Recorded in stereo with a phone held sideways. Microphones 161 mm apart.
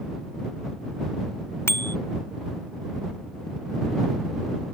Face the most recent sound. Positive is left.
turn(degrees=15)  # may be behind; listen again after turning